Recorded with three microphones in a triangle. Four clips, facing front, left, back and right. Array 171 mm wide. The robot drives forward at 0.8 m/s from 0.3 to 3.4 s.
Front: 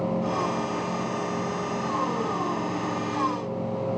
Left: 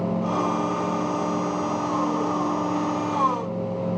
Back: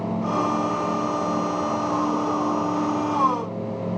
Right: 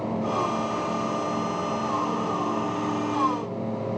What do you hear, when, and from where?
Only background noise.